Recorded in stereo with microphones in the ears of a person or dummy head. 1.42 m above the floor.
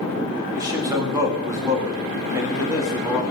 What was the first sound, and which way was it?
A man speaking, 15° right (ahead or behind).